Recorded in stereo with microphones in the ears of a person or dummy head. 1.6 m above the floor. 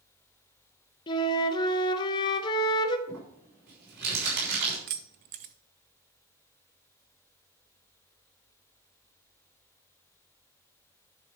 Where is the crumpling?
70° right (ahead or behind), 5 m.